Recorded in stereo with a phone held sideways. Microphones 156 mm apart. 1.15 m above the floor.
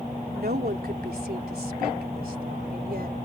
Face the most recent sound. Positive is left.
turn(degrees=-80)